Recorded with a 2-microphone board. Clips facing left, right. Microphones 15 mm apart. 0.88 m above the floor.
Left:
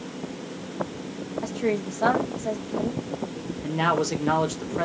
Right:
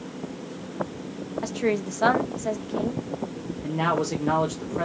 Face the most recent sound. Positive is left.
turn(degrees=25)  # may be behind; listen again after turning